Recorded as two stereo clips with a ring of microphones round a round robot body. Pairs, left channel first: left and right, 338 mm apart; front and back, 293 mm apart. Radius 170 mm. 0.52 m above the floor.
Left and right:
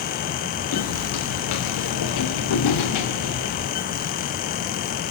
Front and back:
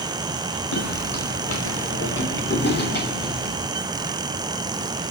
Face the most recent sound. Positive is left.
turn(degrees=60)